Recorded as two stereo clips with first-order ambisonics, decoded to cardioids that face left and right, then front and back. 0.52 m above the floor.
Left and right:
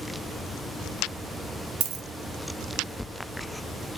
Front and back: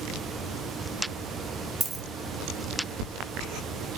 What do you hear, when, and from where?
1.8 s a dropped coin: 110° right, 0.6 m